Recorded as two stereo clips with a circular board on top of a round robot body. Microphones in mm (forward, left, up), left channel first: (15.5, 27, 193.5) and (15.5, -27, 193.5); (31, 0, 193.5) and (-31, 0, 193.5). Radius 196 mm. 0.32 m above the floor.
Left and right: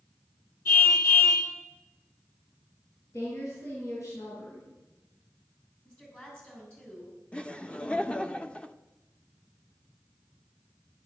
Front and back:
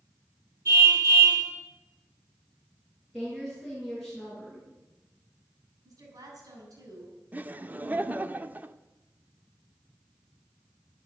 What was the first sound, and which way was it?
A car horn, 130° left.